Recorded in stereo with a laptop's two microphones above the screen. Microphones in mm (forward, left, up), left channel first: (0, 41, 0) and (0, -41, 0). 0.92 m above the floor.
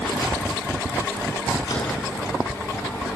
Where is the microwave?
55° left (ahead or behind), 7.5 m.